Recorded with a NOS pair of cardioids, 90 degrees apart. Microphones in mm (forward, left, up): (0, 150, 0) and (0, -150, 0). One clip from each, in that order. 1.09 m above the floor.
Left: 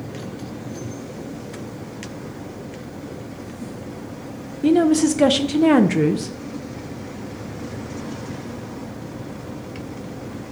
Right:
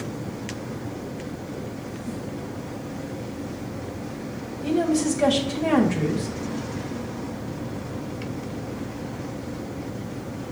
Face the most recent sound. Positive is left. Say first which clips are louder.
# left 7 dB
turn(degrees=55)